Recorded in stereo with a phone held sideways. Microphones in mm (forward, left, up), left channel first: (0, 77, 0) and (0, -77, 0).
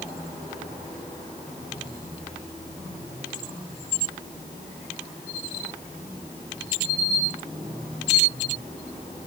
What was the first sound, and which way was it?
Only background noise.